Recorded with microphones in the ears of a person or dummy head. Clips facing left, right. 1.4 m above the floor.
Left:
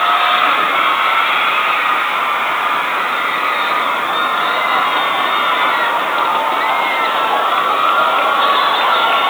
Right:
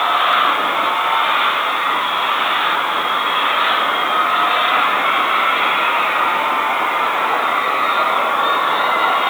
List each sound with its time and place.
Only background noise.